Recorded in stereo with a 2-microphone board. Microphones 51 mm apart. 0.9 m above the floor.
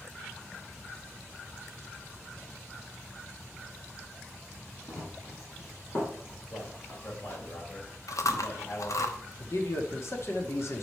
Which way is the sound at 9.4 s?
60° left (ahead or behind).